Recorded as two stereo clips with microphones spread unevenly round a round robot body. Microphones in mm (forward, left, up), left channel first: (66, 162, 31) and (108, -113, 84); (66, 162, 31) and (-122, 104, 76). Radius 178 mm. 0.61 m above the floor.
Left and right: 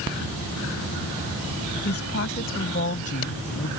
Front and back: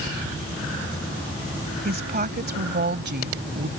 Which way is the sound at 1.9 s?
155° left.